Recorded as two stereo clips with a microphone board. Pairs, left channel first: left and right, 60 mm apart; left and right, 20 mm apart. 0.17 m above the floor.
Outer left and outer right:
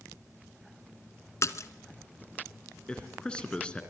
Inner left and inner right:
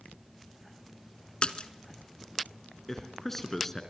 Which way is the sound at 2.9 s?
15° left (ahead or behind).